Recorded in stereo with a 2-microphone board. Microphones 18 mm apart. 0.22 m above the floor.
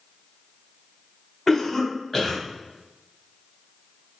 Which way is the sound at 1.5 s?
10° left (ahead or behind).